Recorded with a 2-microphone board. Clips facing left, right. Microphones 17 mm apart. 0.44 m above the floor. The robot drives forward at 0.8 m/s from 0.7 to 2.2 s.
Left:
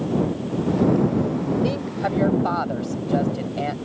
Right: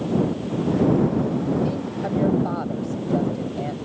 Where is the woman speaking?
40° left (ahead or behind); by 3.9 s 35° left (ahead or behind).